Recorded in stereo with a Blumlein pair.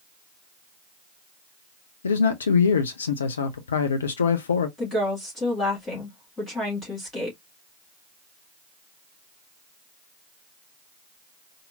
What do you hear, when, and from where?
2.0 s a man speaking: 70° left, 0.6 m
4.8 s a woman speaking: 15° left, 2 m